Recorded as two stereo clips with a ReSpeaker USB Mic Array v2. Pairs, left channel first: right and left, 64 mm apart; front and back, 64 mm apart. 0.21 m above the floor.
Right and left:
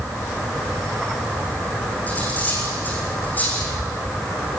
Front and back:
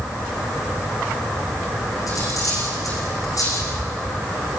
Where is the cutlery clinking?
25° right, 7.5 m.